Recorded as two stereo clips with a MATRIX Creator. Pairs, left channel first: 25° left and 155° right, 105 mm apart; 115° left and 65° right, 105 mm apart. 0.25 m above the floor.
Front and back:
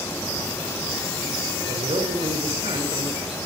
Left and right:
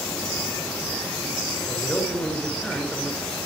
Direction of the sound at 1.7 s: 165° right.